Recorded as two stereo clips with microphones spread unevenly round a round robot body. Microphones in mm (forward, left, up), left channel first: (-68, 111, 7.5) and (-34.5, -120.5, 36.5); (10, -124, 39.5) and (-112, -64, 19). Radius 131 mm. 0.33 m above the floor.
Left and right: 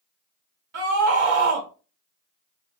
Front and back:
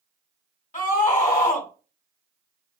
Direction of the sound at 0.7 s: 40° right.